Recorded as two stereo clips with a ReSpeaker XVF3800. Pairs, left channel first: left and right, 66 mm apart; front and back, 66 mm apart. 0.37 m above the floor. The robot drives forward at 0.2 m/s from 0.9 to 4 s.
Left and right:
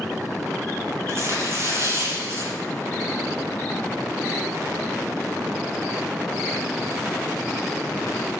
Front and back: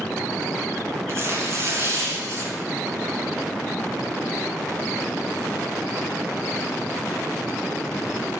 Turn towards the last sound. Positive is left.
turn(degrees=-140)